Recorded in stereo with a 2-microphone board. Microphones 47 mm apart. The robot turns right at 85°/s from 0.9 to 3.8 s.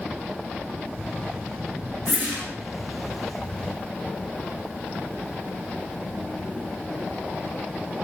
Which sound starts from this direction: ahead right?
A whoosh, at 2.1 s.